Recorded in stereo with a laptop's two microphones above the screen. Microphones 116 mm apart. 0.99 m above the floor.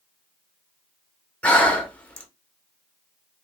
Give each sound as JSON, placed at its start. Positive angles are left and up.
{"t": 1.4, "sound": "breathing", "side_deg": 10, "distance_m": 0.7}